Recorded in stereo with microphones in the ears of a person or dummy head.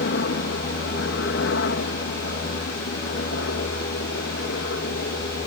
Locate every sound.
0.0 s a helicopter: 60° left (ahead or behind)